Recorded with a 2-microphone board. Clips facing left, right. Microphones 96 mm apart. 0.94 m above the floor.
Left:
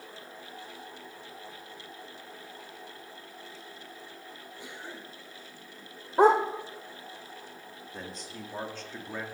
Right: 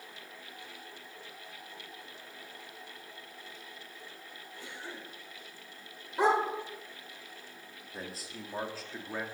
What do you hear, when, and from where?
4.6 s a cough: 15° left (ahead or behind), 5 m
6.2 s a dog barking: 45° left (ahead or behind), 1.3 m
7.9 s a man speaking: 5° right (ahead or behind), 2.0 m